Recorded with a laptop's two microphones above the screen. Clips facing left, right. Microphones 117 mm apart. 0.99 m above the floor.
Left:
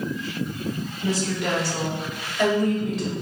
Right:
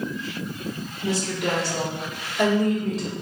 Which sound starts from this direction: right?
A woman speaking, at 1.0 s.